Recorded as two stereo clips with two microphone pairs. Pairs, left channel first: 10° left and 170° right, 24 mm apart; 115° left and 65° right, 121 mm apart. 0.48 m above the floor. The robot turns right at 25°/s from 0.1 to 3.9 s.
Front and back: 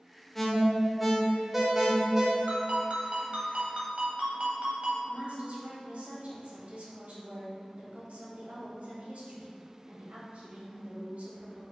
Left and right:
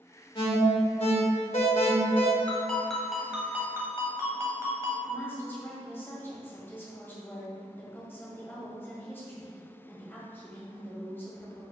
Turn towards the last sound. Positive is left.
turn(degrees=-170)